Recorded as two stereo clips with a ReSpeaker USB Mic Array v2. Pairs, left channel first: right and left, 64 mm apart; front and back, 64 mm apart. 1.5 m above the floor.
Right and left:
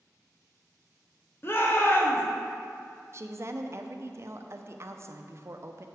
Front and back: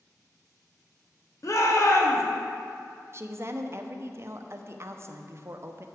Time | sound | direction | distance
1.4 | a shout | 35° right | 1.3 m
3.1 | a woman speaking | 135° left | 0.6 m